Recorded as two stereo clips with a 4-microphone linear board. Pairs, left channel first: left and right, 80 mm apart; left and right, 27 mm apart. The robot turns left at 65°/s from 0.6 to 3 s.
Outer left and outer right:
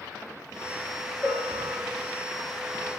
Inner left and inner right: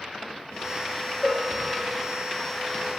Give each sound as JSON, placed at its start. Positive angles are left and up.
{"t": 1.2, "sound": "a bell", "azimuth_deg": -35, "distance_m": 4.5}